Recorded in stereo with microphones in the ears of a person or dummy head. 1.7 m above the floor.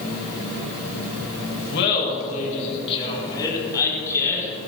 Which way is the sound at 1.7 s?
60° left (ahead or behind).